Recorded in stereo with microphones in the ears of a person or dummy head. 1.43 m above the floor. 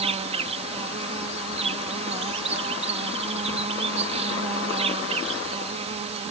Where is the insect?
35° right (ahead or behind).